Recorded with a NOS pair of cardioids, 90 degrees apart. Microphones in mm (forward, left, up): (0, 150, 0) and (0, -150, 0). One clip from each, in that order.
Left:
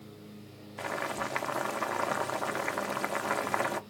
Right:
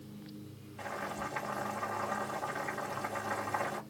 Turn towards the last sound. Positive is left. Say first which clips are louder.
# left 5 dB
turn(degrees=60)